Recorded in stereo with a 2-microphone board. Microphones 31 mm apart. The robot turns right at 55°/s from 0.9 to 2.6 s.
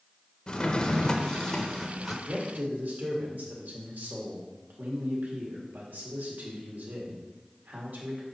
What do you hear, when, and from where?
0.5 s a drawer: 30° left (ahead or behind), 0.8 m; by 2.1 s 5° left (ahead or behind), 0.8 m
2.2 s a man speaking: 55° right (ahead or behind), 1.7 m; by 8.2 s 70° right (ahead or behind), 1.7 m